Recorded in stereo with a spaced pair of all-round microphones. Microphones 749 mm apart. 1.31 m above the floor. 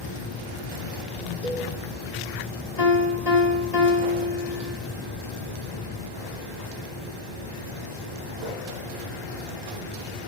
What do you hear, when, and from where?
1.4 s a cowbell: 15° right (ahead or behind), 4 m
2.8 s a piano: 55° left (ahead or behind), 1.9 m